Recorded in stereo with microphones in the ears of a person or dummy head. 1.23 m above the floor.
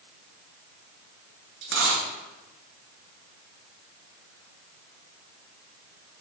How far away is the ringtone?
No ringtone in this recording.